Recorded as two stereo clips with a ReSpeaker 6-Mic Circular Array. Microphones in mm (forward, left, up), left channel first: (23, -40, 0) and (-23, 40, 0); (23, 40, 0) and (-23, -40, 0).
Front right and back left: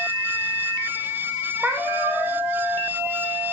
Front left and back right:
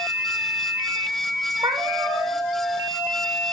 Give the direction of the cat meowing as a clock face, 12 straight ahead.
5 o'clock.